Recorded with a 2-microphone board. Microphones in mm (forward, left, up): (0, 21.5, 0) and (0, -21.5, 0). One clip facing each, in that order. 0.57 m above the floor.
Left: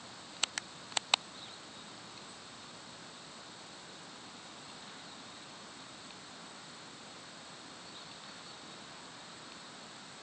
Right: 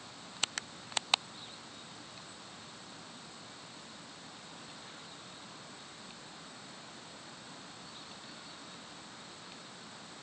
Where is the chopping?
No chopping in this recording.